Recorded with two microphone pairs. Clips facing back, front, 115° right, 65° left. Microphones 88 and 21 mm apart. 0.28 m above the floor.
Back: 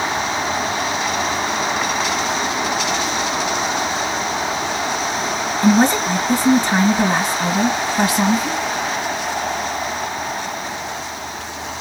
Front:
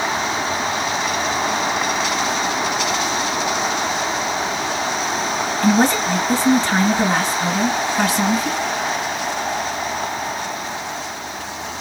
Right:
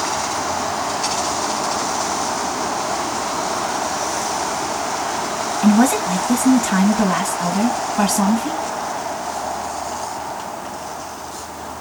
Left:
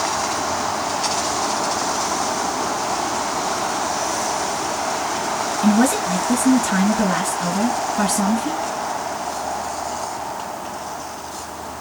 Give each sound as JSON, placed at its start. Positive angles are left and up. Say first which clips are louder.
{"t": 5.6, "sound": "a woman speaking", "louder": "back 2 dB, right 3 dB", "azimuth_deg": -110, "distance_m": 1.9}